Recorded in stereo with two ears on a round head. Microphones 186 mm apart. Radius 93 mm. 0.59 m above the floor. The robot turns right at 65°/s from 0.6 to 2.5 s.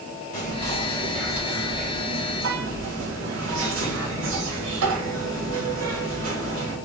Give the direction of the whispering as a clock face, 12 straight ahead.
7 o'clock.